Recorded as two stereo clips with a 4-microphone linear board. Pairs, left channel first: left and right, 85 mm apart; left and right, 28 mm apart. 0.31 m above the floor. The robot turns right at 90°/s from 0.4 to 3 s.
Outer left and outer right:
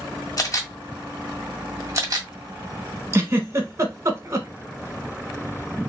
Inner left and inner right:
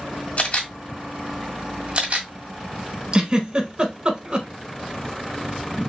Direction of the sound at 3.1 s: 35° right (ahead or behind).